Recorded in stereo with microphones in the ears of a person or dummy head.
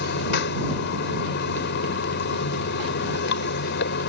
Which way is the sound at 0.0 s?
60° left (ahead or behind).